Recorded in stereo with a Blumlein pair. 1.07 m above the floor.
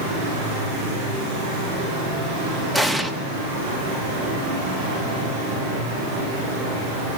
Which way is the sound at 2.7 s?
5° left.